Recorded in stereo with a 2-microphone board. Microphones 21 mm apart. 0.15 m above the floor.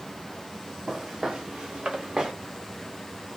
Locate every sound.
0.9 s footsteps: 70° right (ahead or behind), 1.8 m; by 2.3 s 50° right (ahead or behind), 1.2 m